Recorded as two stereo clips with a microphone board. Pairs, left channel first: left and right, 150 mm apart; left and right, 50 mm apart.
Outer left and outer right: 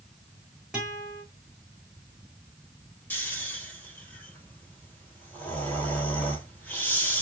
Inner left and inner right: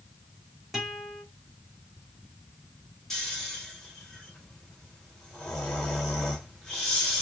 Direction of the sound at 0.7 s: 5° right (ahead or behind).